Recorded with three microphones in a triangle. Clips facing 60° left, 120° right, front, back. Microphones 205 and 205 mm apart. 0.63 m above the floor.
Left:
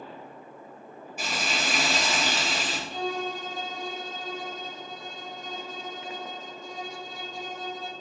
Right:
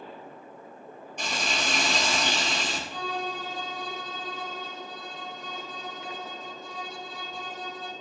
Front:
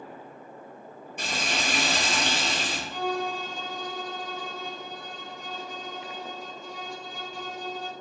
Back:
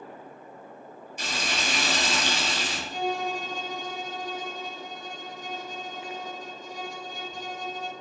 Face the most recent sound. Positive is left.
turn(degrees=125)